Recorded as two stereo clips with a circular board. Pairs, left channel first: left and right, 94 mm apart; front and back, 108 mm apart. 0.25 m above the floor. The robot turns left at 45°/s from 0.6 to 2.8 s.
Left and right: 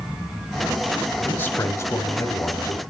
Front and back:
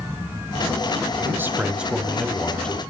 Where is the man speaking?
140° left, 1.2 m; by 2.8 s 65° left, 1.2 m.